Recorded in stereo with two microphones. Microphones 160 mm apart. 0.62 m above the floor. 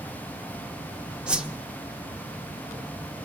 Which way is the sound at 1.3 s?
5° right (ahead or behind).